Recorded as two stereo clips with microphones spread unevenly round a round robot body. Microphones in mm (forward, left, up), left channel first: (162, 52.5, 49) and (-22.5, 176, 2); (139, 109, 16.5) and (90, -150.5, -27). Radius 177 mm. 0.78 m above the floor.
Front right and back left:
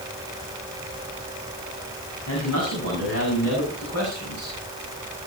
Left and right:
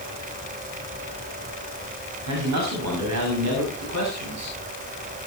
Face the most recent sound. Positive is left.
turn(degrees=-80)